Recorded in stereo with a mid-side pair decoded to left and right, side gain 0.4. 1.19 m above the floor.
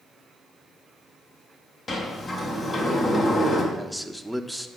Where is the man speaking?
Straight ahead, 1.2 m.